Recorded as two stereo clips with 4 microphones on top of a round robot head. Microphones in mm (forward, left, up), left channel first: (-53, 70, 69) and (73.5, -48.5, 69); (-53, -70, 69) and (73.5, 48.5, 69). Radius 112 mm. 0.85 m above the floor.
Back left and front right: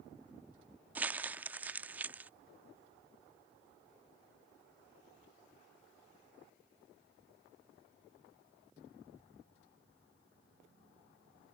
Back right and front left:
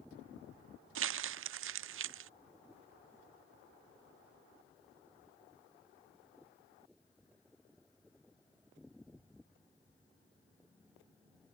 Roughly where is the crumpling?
Ahead left.